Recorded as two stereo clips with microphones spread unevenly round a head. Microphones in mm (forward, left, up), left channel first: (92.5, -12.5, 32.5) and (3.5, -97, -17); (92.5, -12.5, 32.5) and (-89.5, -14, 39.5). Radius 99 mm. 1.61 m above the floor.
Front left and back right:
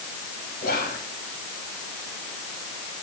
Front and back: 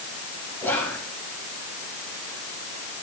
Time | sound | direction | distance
0.6 | whispering | 80° left | 3.5 m